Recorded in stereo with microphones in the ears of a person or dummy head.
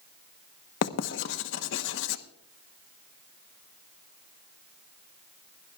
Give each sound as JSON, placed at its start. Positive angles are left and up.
{"t": 0.8, "sound": "writing", "side_deg": 70, "distance_m": 1.0}